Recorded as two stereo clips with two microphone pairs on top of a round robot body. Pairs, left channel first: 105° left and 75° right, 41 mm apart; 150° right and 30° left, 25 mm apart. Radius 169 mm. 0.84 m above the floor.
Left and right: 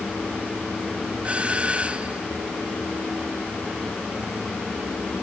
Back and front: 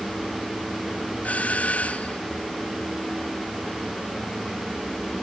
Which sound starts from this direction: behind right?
A doorbell, at 1.2 s.